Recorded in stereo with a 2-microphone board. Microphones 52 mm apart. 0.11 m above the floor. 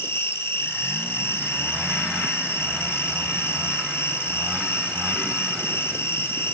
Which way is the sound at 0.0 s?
50° left (ahead or behind).